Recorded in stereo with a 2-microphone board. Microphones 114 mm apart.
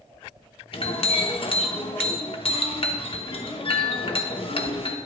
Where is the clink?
50° left (ahead or behind), 0.9 m.